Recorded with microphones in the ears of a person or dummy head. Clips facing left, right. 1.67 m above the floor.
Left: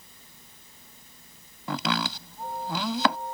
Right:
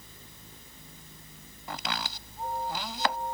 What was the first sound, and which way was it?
A fan, 60° right (ahead or behind).